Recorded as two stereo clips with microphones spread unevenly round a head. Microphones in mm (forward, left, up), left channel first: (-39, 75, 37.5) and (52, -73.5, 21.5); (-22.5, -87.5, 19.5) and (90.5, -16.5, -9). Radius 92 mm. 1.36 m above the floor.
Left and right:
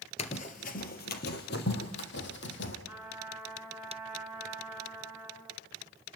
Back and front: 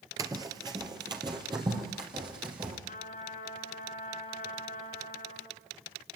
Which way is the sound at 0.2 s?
105° left.